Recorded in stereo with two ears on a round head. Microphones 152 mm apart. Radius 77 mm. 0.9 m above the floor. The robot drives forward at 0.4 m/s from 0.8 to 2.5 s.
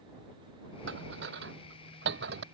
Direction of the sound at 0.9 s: 85° right.